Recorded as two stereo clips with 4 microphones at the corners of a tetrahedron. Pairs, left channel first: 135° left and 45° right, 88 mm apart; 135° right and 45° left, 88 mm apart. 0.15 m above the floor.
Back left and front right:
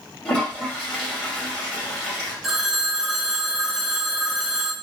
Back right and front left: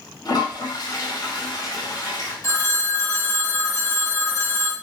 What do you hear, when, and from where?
0.2 s a toilet flushing: 155° right, 1.9 m
2.4 s a phone ringing: 125° right, 0.7 m